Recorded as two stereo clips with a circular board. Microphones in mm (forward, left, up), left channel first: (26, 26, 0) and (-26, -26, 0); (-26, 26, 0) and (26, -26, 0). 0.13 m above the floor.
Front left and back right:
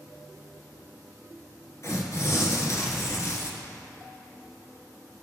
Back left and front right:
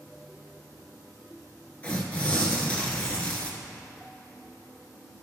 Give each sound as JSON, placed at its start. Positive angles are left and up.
{"t": 1.8, "sound": "tearing paper", "azimuth_deg": 70, "distance_m": 1.4}